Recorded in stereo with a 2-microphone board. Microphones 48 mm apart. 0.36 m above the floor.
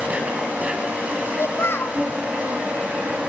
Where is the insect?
30° right (ahead or behind), 3.5 m.